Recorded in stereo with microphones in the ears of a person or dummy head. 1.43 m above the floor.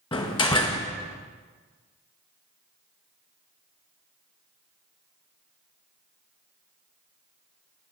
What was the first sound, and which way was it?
A door slam, 30° left (ahead or behind).